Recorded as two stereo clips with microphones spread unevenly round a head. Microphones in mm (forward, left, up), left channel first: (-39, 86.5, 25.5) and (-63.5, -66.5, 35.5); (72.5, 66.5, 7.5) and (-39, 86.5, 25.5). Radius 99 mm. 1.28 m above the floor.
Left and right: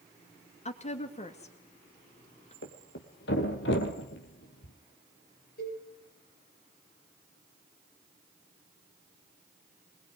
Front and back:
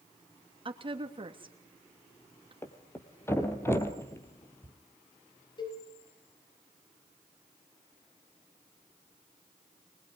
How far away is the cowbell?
About 10 m.